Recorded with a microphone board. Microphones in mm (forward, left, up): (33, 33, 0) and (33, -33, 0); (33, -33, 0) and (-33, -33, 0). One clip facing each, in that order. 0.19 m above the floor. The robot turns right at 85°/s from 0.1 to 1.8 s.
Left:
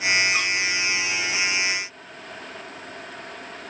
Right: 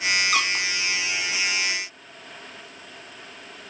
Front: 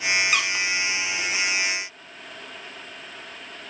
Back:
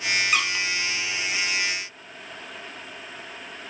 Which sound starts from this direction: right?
A squeak, at 0.3 s.